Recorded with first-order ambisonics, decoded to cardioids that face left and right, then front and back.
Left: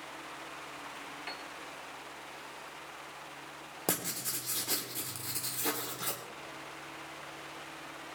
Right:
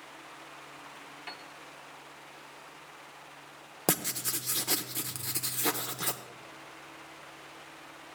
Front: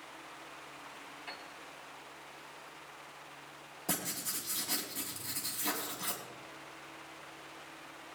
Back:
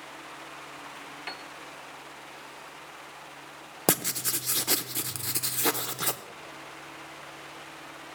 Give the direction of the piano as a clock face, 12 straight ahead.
6 o'clock.